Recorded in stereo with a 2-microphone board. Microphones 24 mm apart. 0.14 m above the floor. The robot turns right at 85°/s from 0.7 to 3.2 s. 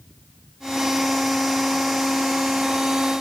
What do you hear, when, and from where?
Only background noise.